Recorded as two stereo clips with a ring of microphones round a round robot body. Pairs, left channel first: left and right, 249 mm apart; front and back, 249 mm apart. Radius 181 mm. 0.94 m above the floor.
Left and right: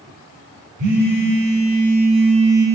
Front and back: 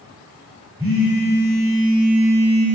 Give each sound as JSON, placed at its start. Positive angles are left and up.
{"t": 0.8, "sound": "a phone buzzing", "azimuth_deg": -100, "distance_m": 4.0}